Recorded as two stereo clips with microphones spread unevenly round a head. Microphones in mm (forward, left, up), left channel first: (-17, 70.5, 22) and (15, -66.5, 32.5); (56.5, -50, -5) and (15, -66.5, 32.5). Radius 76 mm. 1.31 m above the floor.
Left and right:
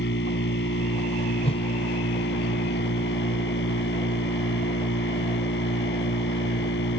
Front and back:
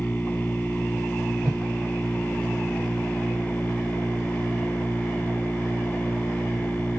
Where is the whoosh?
155° left.